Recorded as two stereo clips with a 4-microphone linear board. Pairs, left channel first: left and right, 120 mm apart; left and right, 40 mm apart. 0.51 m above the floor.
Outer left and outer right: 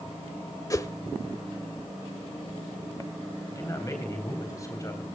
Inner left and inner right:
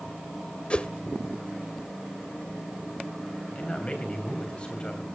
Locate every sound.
0.7 s a whoosh: 30° left (ahead or behind), 0.7 m
3.5 s a man speaking: 30° left (ahead or behind), 3.5 m